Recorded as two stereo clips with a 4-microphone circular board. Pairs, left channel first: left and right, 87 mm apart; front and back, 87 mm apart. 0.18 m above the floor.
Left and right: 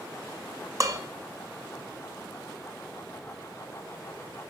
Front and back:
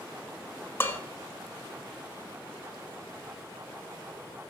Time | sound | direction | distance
0.8 | dishes clattering | 55° right | 1.4 m